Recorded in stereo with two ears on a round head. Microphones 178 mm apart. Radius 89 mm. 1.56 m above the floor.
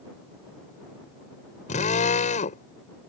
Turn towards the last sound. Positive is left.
turn(degrees=40)  # may be behind; listen again after turning